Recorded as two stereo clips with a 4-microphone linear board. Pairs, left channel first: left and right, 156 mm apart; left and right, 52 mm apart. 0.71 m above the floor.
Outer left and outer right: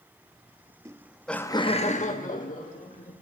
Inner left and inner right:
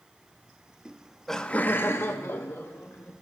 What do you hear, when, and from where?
0.8 s laughter: 20° right (ahead or behind), 0.9 m; by 3.1 s 55° left (ahead or behind), 1.9 m